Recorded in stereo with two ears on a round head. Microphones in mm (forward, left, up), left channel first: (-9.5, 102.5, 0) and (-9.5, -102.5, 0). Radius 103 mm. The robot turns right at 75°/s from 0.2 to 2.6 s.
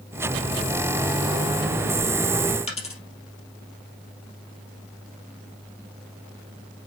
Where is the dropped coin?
30° left (ahead or behind), 3 m.